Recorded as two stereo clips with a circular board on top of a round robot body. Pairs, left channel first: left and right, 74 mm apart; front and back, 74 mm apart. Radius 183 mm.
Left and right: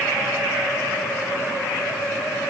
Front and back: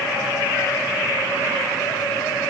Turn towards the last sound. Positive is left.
No sound to turn to.